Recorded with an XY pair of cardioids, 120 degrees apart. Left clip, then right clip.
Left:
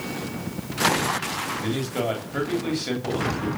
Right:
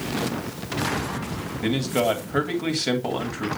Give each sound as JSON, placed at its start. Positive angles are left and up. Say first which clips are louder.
{"t": 1.6, "sound": "a man speaking", "louder": "right 9 dB", "azimuth_deg": -35, "distance_m": 3.0}